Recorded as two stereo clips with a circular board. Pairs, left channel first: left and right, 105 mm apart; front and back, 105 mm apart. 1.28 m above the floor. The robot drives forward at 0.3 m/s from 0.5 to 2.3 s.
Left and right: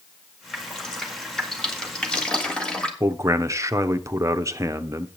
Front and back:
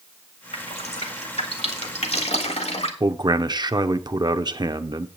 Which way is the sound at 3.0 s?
145° right.